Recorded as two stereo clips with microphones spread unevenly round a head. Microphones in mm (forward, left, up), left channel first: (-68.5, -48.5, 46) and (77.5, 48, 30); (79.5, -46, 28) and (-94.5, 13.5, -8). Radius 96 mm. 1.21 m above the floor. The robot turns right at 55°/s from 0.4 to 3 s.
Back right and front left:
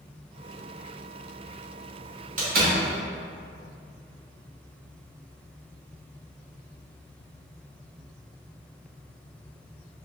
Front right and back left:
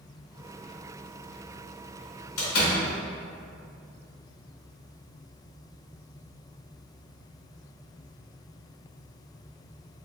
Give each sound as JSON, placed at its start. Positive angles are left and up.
{"t": 2.4, "sound": "a door slam", "azimuth_deg": -15, "distance_m": 1.2}